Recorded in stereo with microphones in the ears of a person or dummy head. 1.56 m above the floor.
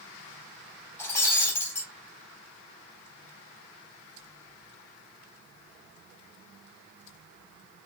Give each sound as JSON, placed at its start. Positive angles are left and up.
{"t": 1.0, "sound": "breaking glass", "side_deg": 20, "distance_m": 3.5}